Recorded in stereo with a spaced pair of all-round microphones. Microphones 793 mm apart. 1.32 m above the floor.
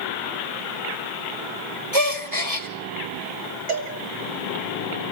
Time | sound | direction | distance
1.9 | a gasp | 40° right (ahead or behind) | 3 m
3.7 | a cowbell | 55° right (ahead or behind) | 3 m